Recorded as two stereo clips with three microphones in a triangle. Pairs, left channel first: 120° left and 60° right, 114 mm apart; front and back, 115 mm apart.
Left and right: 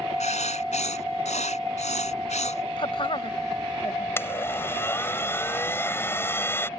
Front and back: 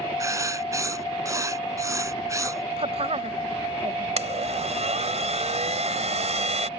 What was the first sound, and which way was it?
Writing, 120° left.